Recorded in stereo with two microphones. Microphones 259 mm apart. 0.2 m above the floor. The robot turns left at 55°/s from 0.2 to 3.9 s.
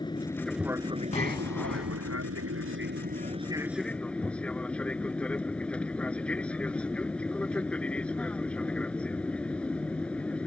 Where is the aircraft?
20° left; by 10.5 s 175° left.